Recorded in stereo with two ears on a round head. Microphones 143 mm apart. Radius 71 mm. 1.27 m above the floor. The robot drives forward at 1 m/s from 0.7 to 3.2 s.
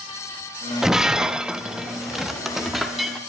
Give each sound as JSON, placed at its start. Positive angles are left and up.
{"t": 0.8, "sound": "breaking glass", "side_deg": 0, "distance_m": 0.8}